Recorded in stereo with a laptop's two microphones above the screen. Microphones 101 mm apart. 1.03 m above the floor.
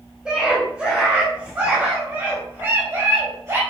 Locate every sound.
0.2 s a scream: 10° right (ahead or behind), 5 m; by 3.6 s 30° right (ahead or behind), 4.5 m